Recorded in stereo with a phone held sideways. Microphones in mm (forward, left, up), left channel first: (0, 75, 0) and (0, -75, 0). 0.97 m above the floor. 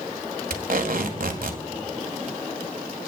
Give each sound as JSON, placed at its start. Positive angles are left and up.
{"t": 0.5, "sound": "tape being pulled", "side_deg": -70, "distance_m": 1.5}